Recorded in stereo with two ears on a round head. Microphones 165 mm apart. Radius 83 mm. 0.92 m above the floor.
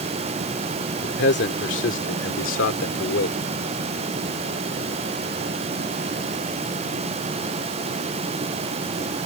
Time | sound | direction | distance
1.0 | a man speaking | 60° left (ahead or behind) | ?